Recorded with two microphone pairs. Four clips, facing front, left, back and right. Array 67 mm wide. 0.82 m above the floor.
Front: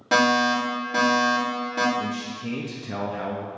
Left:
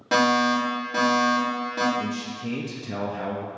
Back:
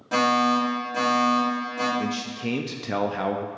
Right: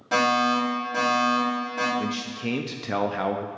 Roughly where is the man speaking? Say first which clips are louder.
Even, back 1 dB; right.